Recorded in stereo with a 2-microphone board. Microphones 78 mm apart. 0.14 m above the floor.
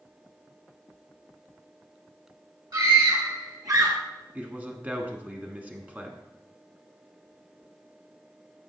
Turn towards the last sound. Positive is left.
turn(degrees=-20)  # may be behind; listen again after turning